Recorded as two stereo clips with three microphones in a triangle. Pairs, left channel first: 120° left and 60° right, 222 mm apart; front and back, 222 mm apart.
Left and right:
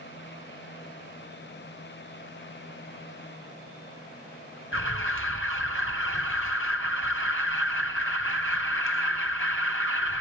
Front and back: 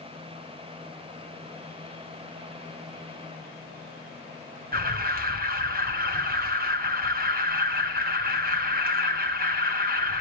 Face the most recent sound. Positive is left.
turn(degrees=135)